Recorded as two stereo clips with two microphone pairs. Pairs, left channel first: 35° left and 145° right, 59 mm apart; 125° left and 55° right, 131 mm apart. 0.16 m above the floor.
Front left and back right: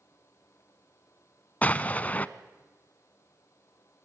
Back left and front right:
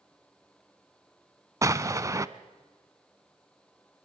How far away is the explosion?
About 0.6 m.